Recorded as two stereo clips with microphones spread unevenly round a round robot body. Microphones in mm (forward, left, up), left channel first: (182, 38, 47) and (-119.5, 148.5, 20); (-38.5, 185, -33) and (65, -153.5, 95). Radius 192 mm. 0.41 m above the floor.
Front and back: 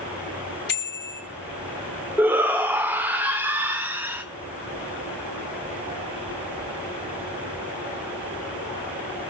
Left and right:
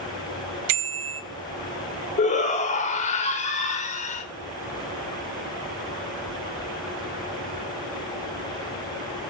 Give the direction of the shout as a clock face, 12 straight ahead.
9 o'clock.